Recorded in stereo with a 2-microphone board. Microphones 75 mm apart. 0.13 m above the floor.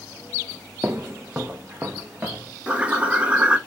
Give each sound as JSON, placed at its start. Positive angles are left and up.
{"t": 0.8, "sound": "footsteps", "side_deg": -25, "distance_m": 0.7}
{"t": 2.7, "sound": "a bird", "side_deg": -15, "distance_m": 0.7}